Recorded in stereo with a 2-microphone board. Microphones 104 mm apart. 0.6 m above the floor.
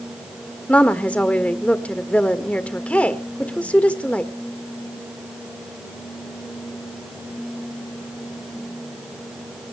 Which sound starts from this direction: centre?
A woman speaking, at 0.7 s.